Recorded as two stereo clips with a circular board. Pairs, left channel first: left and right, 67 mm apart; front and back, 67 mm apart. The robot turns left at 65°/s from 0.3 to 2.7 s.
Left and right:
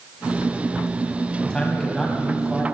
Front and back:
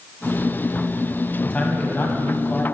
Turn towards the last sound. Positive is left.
turn(degrees=-45)